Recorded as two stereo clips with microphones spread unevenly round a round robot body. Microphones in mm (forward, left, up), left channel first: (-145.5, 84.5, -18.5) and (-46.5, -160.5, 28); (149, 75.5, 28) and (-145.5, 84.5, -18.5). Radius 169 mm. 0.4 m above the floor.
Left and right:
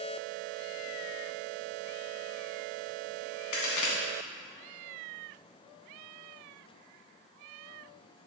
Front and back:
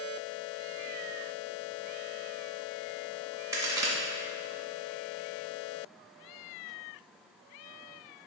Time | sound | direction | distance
3.5 | a crack | 100° left | 1.9 m